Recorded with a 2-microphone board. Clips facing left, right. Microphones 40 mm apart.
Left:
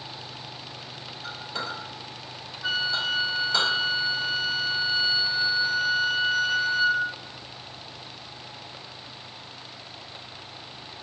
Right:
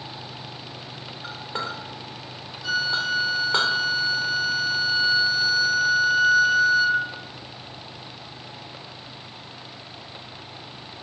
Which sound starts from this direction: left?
A flute, at 2.6 s.